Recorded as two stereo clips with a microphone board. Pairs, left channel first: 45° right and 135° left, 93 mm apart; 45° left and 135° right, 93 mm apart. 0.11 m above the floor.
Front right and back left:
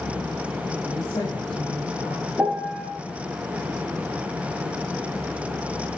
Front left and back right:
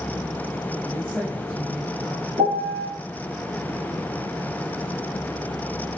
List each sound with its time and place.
0.8 s a man speaking: 65° right, 7.5 m
2.4 s a piano: 140° right, 4.5 m